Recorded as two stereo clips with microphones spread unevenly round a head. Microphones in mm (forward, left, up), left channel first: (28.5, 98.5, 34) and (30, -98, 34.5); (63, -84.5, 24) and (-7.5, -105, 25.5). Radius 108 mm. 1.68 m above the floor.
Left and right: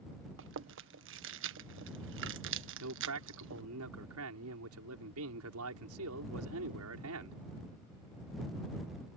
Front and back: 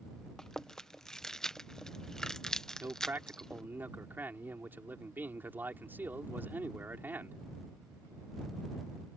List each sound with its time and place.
0.4 s chewing: 65° right
2.8 s a man speaking: 100° right